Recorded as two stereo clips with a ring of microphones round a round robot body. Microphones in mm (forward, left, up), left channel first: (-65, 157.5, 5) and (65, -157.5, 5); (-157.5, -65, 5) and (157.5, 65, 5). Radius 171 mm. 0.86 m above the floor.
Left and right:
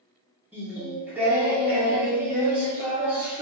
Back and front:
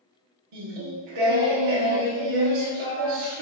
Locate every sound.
0.5 s singing: 20° left, 1.2 m